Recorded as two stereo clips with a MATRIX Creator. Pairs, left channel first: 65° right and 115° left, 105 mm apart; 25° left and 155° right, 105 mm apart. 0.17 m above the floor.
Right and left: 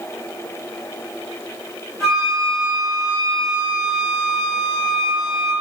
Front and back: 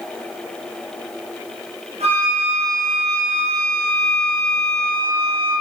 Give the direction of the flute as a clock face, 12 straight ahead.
5 o'clock.